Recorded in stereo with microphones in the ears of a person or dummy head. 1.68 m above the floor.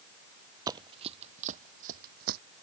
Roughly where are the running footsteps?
Right.